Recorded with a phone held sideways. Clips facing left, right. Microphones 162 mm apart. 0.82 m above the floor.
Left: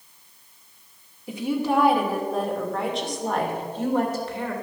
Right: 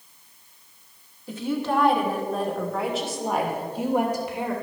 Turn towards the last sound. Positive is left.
turn(degrees=-15)  # may be behind; listen again after turning